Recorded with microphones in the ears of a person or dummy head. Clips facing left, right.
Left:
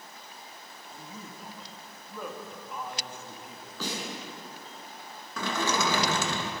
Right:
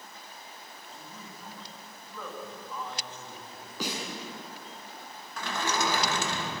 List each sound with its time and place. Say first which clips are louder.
0.9 s a man speaking: left 4 dB; 20° left (ahead or behind), 2.5 m
3.8 s a snare drum: even; 20° right (ahead or behind), 7.5 m
5.4 s a sliding door: left 2 dB; 85° left, 2.5 m